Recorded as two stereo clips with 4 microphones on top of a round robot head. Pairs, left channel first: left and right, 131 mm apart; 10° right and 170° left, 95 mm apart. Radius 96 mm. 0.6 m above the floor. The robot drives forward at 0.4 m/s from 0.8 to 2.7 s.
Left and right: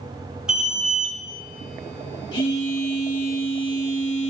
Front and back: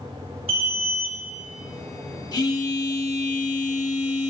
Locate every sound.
0.5 s an alarm: 175° right, 5.5 m
2.3 s a phone buzzing: 35° left, 4 m